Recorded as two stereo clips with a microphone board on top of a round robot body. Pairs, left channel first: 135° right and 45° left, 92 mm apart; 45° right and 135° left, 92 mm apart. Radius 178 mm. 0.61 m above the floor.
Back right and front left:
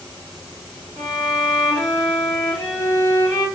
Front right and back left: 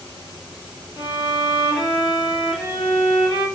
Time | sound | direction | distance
1.0 | a violin | 80° right | 1.4 m